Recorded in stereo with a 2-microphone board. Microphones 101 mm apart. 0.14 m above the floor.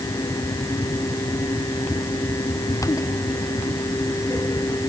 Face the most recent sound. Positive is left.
No sound to turn to.